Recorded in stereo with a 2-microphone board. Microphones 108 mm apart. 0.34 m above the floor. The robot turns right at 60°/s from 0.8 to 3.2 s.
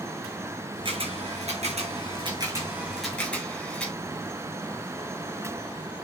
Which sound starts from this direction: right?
A camera shutter, at 0.8 s.